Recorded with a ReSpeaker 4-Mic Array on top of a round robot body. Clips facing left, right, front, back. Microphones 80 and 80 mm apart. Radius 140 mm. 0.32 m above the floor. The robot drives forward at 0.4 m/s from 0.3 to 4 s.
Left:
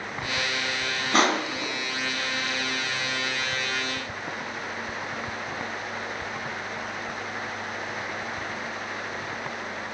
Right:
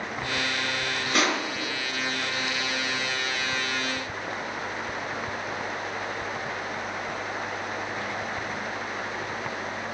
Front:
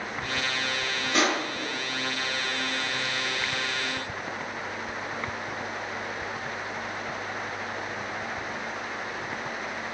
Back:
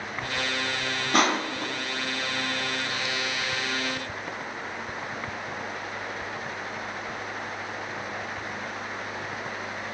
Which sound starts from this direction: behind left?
Crushing, at 1.1 s.